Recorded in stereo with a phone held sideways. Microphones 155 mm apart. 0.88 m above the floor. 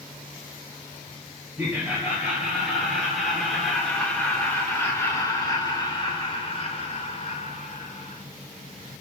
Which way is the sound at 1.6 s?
15° right (ahead or behind).